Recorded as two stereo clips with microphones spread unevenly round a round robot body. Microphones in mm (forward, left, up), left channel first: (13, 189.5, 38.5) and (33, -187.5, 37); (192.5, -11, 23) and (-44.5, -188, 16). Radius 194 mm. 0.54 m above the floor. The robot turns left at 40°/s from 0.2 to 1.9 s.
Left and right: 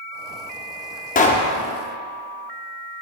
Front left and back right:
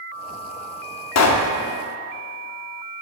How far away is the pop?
About 0.7 m.